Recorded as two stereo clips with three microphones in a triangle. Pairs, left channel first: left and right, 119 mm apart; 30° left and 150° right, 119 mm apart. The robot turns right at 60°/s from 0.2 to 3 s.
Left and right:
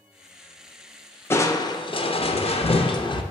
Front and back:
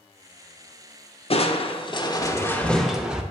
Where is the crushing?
25° left, 0.5 m; by 3.2 s 125° left, 0.5 m.